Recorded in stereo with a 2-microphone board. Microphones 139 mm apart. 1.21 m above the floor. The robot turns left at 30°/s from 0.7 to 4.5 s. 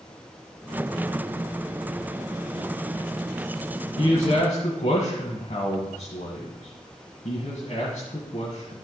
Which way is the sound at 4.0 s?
50° left (ahead or behind).